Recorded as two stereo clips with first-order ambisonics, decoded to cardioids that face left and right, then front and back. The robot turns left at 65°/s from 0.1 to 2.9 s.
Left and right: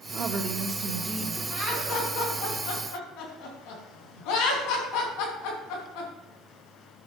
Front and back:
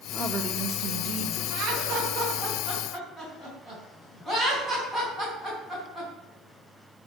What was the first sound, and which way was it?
A woman speaking, 100° right.